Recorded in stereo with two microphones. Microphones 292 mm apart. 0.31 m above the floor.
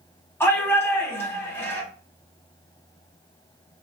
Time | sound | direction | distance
0.4 | a shout | 10° left (ahead or behind) | 1.8 m